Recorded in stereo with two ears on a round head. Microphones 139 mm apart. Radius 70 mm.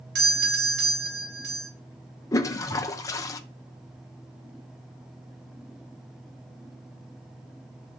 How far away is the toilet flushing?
About 0.7 m.